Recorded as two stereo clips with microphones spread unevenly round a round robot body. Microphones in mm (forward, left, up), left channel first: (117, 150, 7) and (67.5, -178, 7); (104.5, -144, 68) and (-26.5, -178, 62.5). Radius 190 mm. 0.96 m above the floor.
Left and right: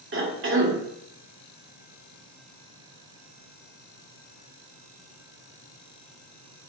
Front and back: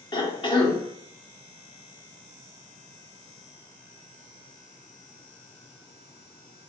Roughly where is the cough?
Ahead right.